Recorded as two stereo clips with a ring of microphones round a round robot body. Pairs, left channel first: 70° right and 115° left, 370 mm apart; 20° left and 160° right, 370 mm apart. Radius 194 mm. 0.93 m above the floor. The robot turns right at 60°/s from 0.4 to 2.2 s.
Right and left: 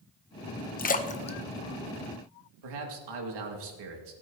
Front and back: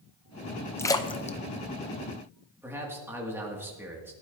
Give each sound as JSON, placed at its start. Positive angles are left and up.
{"t": 0.8, "sound": "a splash", "azimuth_deg": -50, "distance_m": 0.7}
{"t": 2.6, "sound": "a man speaking", "azimuth_deg": 120, "distance_m": 2.0}